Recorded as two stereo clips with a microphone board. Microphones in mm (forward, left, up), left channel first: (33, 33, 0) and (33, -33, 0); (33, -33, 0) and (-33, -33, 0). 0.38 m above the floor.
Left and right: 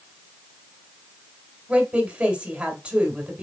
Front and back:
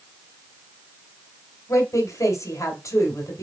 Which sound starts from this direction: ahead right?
A woman speaking, at 1.7 s.